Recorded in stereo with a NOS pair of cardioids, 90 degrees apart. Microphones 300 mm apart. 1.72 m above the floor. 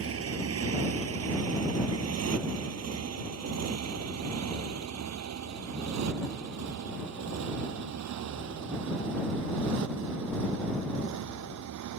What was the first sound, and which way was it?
A motorcycle, 50° right.